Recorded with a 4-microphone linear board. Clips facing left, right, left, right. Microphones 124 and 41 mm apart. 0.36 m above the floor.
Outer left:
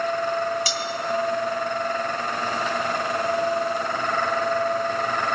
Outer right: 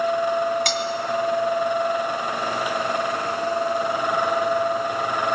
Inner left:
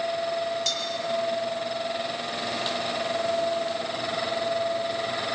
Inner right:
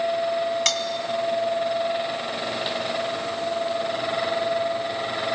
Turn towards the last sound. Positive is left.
turn(degrees=-65)  # may be behind; listen again after turning